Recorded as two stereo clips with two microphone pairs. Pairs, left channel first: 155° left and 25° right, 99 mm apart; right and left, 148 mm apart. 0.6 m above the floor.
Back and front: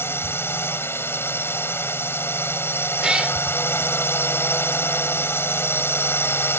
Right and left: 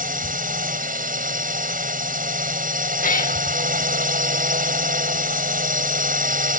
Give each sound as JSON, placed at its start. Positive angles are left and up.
{"t": 0.0, "sound": "a drone", "azimuth_deg": 90}
{"t": 3.0, "sound": "a cat meowing", "azimuth_deg": -105}